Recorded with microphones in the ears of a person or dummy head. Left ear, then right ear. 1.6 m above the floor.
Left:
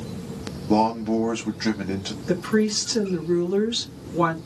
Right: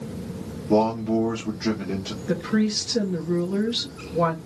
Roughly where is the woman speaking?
Centre.